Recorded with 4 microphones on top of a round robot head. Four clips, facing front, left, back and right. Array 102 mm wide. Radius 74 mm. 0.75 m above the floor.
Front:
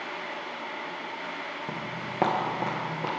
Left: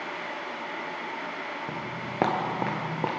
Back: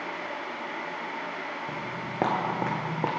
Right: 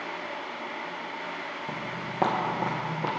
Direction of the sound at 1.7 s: 25° left.